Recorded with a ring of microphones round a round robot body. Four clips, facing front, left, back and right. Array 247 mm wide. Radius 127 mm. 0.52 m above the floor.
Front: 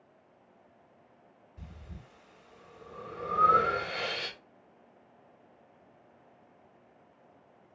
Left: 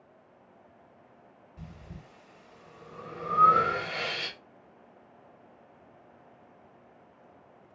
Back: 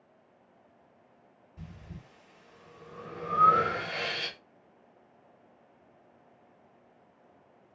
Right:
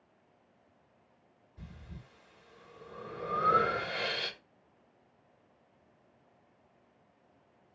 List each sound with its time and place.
1.6 s breathing: 140° left, 1.7 m